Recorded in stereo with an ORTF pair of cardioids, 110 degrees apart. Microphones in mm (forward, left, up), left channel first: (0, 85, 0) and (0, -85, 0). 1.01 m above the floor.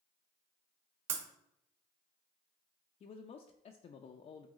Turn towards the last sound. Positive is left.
turn(degrees=40)